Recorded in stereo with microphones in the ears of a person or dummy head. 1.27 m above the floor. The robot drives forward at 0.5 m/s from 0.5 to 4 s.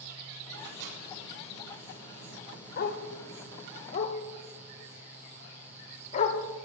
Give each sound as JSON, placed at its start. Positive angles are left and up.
{"t": 0.6, "sound": "a microwave", "side_deg": -60, "distance_m": 5.0}
{"t": 2.8, "sound": "a dog barking", "side_deg": 45, "distance_m": 0.9}